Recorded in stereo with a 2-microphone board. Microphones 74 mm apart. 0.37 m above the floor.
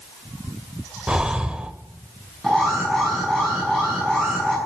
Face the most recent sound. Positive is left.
turn(degrees=5)  # may be behind; listen again after turning